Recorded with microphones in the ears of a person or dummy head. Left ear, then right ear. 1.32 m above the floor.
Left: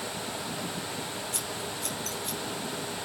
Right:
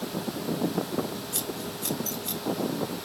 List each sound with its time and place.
1.3 s scissors: 5° left (ahead or behind), 5 m